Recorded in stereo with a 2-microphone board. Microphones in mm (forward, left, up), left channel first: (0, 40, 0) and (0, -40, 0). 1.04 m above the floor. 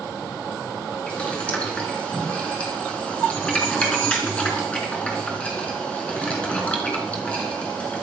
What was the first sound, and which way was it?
Boiling, 15° left (ahead or behind).